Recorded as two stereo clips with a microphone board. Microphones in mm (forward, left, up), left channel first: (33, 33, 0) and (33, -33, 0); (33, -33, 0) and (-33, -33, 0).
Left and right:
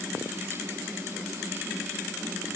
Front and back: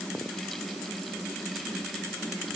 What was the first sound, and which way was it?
Only background noise.